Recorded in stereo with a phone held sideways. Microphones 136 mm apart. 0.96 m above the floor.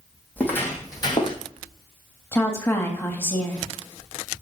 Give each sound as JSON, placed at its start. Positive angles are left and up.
{"t": 0.4, "sound": "footsteps", "side_deg": 10, "distance_m": 1.8}
{"t": 2.3, "sound": "a woman speaking", "side_deg": 20, "distance_m": 1.3}